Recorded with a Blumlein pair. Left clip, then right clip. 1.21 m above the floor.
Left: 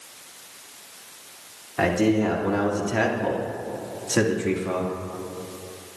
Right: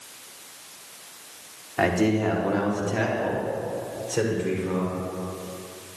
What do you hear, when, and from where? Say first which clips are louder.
1.8 s a man speaking: left 1 dB; 5° right, 2.5 m; by 4.9 s 55° left, 2.5 m